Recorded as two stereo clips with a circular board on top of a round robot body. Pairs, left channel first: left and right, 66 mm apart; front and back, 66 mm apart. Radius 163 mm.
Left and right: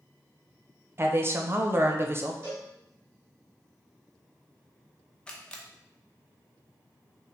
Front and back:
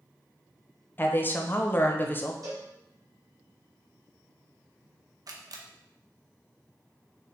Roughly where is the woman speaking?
Ahead right.